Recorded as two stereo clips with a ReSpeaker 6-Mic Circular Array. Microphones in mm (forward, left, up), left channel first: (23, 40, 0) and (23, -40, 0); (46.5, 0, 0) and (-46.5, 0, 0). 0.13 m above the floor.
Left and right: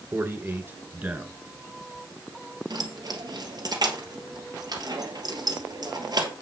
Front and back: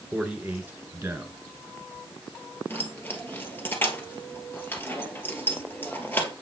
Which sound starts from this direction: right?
A man speaking, at 0.1 s.